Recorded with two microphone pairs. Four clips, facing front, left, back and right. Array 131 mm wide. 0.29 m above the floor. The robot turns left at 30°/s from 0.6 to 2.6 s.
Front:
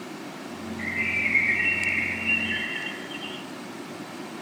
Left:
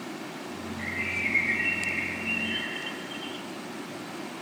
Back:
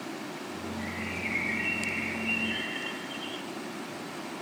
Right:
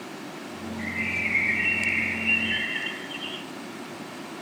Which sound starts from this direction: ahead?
A bird, at 0.8 s.